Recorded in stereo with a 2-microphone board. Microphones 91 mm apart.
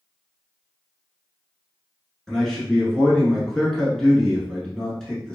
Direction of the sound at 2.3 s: 5° left (ahead or behind).